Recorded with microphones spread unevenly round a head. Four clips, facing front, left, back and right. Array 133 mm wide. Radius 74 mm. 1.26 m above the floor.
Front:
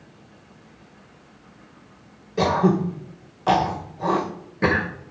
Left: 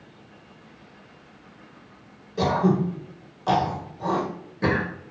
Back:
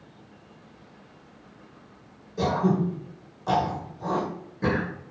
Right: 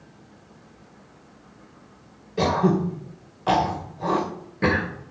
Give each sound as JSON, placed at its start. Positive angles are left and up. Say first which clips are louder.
{"t": 2.4, "sound": "throat clearing", "louder": "right 1 dB, front 4 dB", "azimuth_deg": -5, "distance_m": 2.0}